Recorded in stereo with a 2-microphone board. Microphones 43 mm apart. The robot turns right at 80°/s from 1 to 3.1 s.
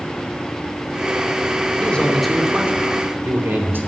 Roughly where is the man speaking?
Behind left.